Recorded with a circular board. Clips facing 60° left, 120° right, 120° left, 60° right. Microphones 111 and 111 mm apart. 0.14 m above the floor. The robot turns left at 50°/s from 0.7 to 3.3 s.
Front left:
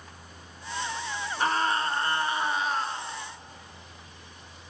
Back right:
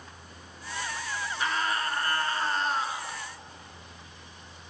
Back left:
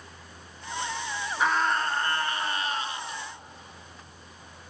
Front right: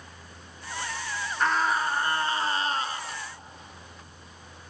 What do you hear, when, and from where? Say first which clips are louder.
1.4 s a scream: front left 4 dB, even; 40° left, 1.8 m; by 3.2 s 50° right, 1.8 m